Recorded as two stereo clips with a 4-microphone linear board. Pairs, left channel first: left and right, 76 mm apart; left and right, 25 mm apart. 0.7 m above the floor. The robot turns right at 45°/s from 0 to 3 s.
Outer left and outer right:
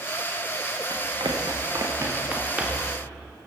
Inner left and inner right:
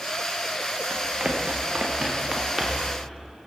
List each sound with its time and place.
0.9 s running footsteps: 80° right, 5 m; by 2.9 s centre (ahead or behind), 6 m